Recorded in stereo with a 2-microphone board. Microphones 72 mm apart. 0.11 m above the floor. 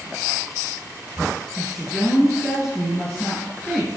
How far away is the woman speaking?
About 2.5 m.